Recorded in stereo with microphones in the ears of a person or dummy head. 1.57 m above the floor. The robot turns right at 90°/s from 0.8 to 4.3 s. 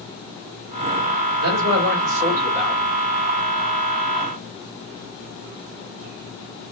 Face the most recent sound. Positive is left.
turn(degrees=155)